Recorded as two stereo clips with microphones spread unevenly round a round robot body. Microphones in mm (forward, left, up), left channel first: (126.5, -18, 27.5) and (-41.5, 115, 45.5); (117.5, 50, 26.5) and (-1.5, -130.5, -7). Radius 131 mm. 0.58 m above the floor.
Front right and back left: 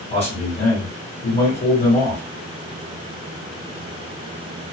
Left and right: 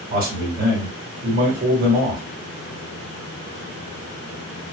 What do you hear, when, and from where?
0.1 s a man speaking: 95° right, 1.8 m